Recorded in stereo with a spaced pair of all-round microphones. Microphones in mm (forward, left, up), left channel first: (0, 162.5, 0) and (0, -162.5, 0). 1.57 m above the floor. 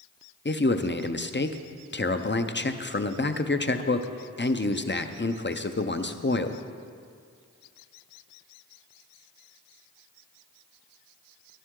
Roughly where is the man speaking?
Left.